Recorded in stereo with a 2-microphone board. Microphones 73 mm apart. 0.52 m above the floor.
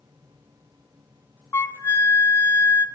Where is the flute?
35° left (ahead or behind), 0.8 m.